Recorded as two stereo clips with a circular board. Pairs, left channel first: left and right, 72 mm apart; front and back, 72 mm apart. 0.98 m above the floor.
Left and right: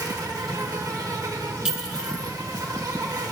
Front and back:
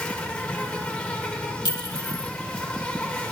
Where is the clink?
15° right, 1.3 m.